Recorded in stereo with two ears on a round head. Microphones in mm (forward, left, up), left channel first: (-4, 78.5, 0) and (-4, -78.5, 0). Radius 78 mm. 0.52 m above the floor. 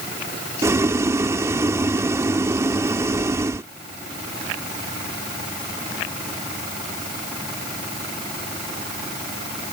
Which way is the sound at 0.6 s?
15° right (ahead or behind).